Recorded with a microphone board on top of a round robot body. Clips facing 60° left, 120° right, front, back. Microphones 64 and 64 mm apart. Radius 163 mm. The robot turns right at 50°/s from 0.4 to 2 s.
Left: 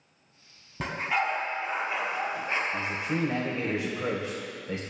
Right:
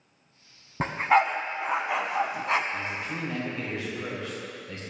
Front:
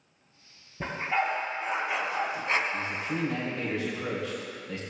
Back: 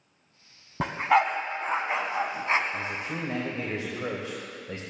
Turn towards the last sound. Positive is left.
turn(degrees=120)